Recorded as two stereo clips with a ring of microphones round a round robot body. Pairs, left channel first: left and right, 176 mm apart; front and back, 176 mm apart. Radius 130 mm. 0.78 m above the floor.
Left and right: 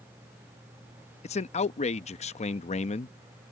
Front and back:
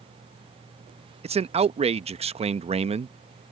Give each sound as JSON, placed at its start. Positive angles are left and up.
{"t": 1.2, "sound": "a man speaking", "azimuth_deg": 135}